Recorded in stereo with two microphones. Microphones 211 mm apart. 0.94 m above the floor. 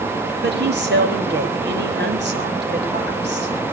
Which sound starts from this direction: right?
A woman speaking, at 0.4 s.